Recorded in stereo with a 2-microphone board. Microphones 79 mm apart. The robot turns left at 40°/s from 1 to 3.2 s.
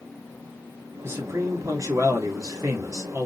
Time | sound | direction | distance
1.0 | a man speaking | 40° right | 2.5 m